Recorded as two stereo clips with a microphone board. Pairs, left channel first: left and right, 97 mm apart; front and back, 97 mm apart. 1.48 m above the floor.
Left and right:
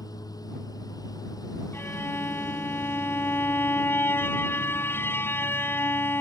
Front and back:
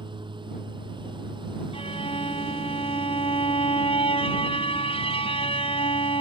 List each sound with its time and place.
0.0 s a lawn mower: 140° left
1.7 s a violin: 25° left